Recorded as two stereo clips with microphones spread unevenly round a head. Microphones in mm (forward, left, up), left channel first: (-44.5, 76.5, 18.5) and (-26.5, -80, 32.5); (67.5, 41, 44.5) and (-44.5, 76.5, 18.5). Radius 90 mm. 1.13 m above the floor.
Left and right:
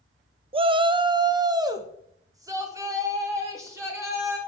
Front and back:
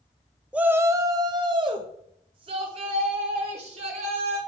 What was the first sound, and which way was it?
A shout, 130° right.